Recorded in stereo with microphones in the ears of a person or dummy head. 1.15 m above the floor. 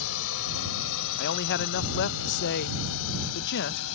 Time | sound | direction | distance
0.0 | a drone | 75° left (ahead or behind) | ?
1.2 | a man speaking | 60° left (ahead or behind) | ?